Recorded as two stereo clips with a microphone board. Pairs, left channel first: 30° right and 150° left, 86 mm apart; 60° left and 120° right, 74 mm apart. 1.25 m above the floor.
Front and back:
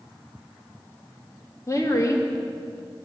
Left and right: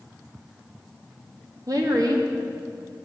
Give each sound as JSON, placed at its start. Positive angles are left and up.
{"t": 1.7, "sound": "a woman speaking", "azimuth_deg": -85, "distance_m": 2.5}